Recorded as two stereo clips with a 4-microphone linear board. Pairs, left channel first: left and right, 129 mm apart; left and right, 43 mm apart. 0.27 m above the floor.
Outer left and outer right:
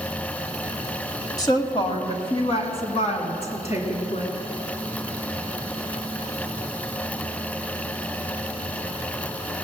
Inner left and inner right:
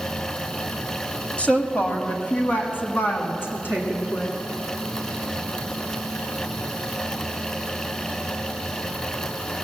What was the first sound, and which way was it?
A woman speaking, 30° left (ahead or behind).